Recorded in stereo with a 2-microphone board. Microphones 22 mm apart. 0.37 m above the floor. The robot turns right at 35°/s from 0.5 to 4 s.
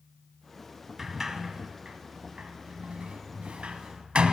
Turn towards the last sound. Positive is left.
turn(degrees=-65)  # may be behind; listen again after turning